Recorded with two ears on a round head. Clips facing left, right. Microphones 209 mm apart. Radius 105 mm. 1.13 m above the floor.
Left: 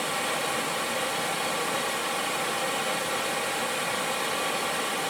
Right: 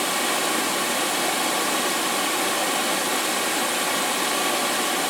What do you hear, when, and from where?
0.0 s running water: 60° right (ahead or behind), 1.1 m